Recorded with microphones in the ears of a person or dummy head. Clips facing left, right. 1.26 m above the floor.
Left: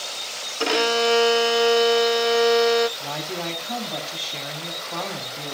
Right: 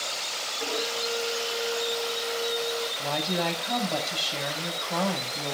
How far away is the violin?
About 0.6 m.